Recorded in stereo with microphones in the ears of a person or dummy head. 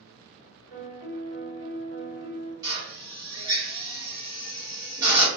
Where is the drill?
20° right (ahead or behind), 0.7 m.